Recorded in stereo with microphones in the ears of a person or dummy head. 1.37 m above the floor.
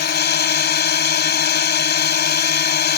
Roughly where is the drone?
Left.